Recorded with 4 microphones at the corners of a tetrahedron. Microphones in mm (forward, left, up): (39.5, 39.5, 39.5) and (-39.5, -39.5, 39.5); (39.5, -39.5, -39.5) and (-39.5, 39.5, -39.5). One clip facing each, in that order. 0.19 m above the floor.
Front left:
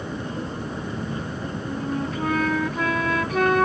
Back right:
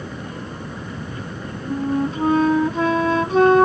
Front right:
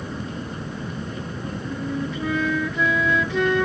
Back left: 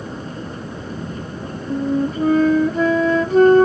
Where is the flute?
170° left.